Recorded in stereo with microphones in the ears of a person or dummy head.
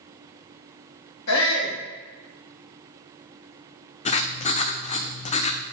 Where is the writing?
35° left (ahead or behind), 0.5 m.